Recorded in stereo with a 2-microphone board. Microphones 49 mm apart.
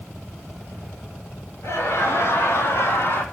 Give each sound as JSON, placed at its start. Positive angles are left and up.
{"t": 1.6, "sound": "laughter", "side_deg": 65, "distance_m": 6.5}